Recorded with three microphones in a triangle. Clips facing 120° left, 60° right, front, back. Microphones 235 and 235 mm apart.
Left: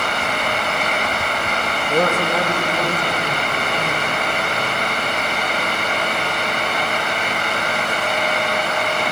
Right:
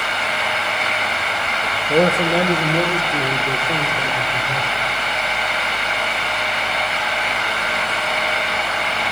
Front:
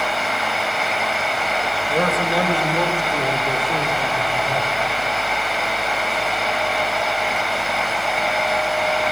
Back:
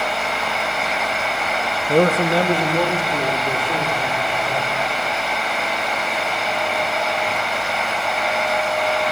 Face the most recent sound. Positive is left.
turn(degrees=-90)